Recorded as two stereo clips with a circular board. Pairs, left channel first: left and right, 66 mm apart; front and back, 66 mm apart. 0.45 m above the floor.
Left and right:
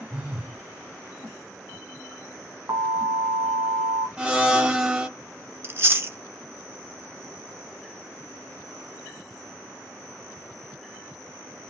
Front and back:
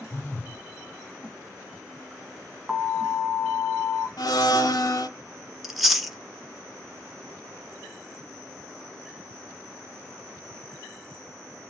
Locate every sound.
0.1 s a phone buzzing: 20° right, 1.5 m
2.7 s an alarm: 105° right, 1.2 m
4.2 s a blender: 15° right, 0.5 m
5.6 s chewing: 95° right, 0.6 m